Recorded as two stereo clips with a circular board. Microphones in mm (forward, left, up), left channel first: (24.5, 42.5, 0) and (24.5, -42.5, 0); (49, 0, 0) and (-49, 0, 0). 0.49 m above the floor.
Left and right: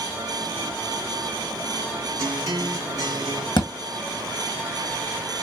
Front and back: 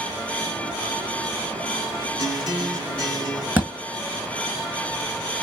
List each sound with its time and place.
2.2 s a guitar: 135° right, 1.5 m
3.6 s a thud: 110° left, 1.6 m